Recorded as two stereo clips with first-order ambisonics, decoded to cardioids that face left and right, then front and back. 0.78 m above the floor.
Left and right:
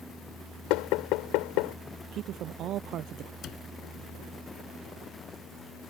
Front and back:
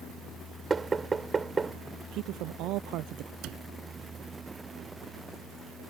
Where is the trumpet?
No trumpet in this recording.